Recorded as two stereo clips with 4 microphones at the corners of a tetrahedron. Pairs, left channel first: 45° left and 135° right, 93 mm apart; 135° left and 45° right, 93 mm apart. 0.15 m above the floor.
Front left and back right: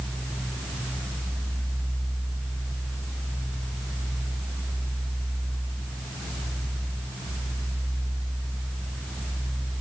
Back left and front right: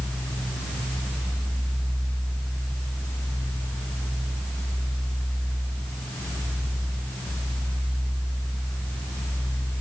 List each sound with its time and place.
Only background noise.